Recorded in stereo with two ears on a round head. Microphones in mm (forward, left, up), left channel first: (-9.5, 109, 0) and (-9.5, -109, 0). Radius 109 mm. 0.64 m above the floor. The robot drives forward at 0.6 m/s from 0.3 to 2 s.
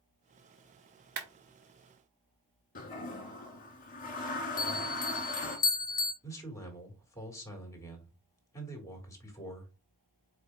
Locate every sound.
1.2 s a clap: 45° right (ahead or behind), 0.9 m
2.8 s a toilet flushing: 40° left (ahead or behind), 1.5 m
4.6 s a bell: 15° left (ahead or behind), 0.5 m
6.2 s a man speaking: 15° left (ahead or behind), 1.7 m